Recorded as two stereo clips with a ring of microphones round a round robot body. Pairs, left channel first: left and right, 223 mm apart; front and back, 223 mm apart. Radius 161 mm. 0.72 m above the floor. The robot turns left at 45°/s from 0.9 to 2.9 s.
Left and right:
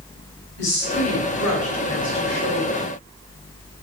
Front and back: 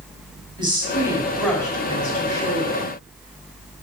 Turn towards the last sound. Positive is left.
turn(degrees=20)